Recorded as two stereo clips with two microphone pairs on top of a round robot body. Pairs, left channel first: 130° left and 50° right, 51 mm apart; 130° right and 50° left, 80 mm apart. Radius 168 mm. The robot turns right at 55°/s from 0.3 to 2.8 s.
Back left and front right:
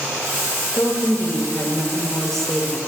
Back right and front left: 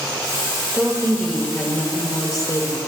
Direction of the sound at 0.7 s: 125° left.